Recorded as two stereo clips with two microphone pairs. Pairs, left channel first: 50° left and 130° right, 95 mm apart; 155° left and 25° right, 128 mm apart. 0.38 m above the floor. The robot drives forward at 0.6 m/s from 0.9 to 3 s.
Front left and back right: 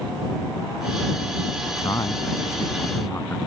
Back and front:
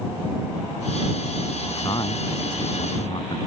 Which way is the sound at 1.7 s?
100° left.